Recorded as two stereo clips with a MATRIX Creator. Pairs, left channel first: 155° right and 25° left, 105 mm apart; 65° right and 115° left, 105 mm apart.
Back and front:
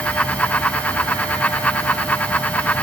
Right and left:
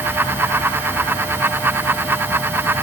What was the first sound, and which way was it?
Only background noise.